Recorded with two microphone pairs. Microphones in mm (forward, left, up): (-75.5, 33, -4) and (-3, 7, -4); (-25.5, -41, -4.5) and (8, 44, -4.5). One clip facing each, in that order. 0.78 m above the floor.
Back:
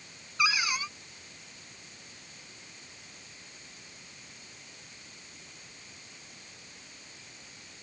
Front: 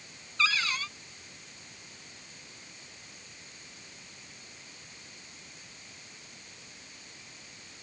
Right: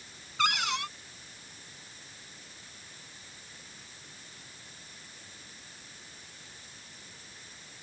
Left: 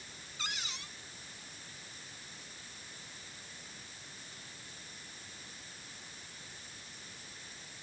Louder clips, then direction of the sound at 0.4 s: Back 1 dB, right 15 dB; 125° right.